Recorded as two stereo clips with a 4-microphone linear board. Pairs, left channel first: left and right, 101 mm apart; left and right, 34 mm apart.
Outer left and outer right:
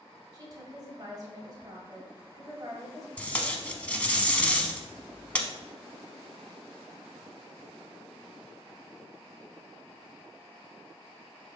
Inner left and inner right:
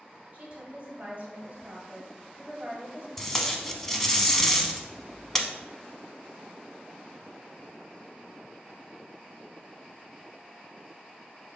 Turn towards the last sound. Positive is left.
turn(degrees=15)  # may be behind; listen again after turning